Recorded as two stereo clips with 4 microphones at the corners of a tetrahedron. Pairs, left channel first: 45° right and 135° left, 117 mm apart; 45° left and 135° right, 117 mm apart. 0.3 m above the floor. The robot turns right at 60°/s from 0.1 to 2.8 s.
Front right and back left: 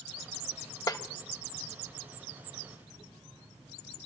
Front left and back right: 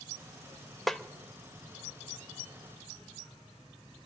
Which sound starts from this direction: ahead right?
A snare drum, at 0.9 s.